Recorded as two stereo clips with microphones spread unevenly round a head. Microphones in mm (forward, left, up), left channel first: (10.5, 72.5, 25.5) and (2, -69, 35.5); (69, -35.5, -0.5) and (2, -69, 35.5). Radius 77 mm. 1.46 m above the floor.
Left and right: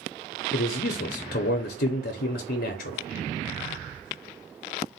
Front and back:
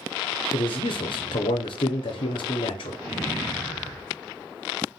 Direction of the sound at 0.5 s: 60° left.